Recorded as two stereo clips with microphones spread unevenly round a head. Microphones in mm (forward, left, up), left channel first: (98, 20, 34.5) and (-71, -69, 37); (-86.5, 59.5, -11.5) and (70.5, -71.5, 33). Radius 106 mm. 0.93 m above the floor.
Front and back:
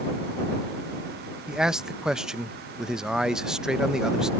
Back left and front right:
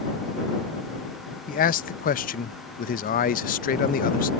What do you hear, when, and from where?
1.5 s a man speaking: 120° left